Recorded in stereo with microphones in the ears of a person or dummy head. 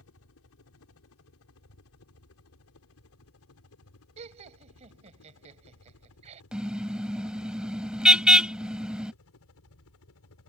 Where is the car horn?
5° right (ahead or behind).